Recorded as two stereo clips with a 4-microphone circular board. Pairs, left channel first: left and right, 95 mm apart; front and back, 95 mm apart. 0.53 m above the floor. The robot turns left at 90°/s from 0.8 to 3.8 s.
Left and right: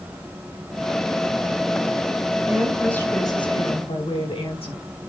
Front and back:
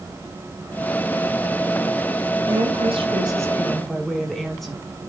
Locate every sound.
2.5 s a woman speaking: 155° right, 5.5 m; by 4.8 s 85° left, 5.5 m